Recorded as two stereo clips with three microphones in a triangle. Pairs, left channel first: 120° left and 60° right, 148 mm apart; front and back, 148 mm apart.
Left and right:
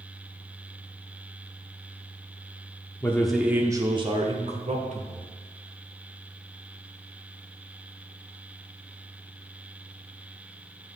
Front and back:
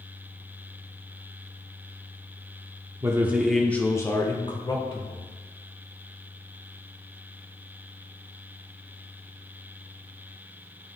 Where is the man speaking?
165° left, 0.8 m; by 5.3 s 45° right, 1.6 m.